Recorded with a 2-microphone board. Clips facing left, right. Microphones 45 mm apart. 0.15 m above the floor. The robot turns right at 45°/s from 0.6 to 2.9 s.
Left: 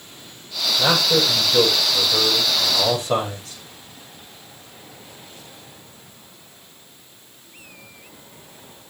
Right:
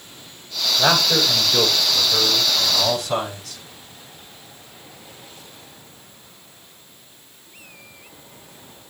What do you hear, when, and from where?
0.8 s a man speaking: 65° right, 7 m; by 3.6 s 30° left, 7 m